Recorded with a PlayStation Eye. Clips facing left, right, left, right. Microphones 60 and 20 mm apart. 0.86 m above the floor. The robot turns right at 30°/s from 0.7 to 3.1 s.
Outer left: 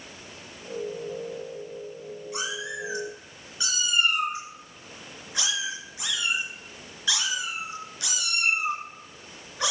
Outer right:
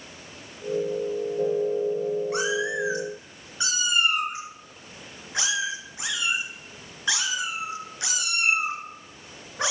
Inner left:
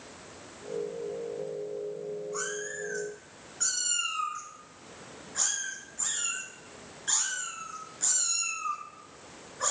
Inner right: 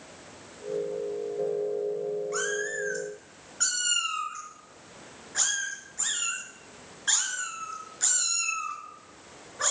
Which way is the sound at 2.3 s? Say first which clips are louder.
Outer right 7 dB, inner right 5 dB; 55° right (ahead or behind).